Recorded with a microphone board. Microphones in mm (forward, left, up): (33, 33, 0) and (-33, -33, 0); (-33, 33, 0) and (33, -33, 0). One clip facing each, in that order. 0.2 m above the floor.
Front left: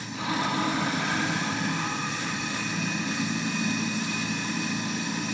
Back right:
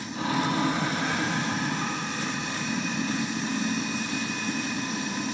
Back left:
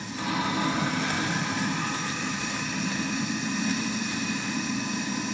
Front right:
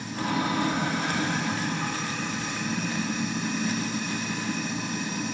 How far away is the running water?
About 3 m.